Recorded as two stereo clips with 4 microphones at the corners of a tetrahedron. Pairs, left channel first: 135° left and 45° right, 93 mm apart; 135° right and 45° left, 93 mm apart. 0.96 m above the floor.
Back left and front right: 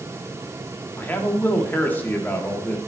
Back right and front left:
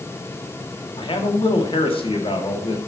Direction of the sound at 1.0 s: 155° right.